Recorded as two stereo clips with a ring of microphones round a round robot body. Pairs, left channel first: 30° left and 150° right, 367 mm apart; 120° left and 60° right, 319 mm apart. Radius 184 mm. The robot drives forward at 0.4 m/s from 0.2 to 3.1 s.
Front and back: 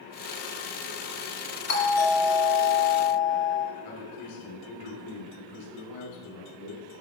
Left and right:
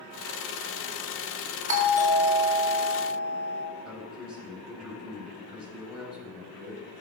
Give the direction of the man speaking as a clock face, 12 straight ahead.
11 o'clock.